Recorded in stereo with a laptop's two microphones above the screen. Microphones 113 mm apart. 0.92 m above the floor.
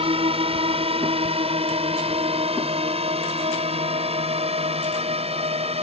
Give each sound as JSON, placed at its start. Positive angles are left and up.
{"t": 0.0, "sound": "a drone", "side_deg": -55}